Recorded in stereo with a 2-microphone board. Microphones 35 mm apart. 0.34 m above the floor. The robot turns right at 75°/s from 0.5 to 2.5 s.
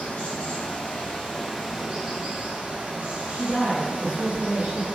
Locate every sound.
0.0 s running water: 95° left, 1.6 m; by 5.0 s 115° right, 1.6 m
3.3 s a woman speaking: 30° right (ahead or behind), 1.6 m